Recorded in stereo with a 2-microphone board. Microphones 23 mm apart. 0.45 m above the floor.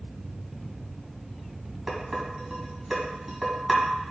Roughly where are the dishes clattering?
Centre.